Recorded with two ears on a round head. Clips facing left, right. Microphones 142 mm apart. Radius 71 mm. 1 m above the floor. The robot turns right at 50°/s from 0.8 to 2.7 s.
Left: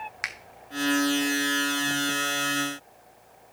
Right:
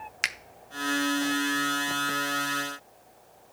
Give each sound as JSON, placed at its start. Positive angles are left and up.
{"t": 0.2, "sound": "a finger snap", "side_deg": -35, "distance_m": 0.5}